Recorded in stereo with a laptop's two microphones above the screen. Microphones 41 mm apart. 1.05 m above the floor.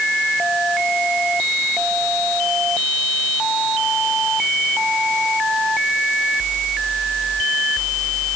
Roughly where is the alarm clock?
I don't hear an alarm clock.